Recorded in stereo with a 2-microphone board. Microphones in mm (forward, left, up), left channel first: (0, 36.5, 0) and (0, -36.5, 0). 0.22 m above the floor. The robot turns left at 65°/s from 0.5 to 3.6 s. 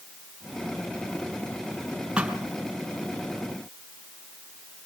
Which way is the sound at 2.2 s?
15° right (ahead or behind).